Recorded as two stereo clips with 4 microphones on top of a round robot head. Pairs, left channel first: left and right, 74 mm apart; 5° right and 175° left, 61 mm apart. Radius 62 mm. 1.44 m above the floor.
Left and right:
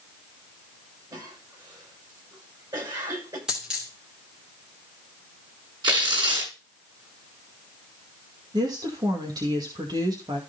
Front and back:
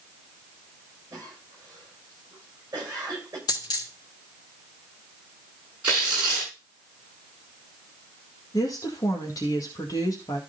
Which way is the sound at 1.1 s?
125° right.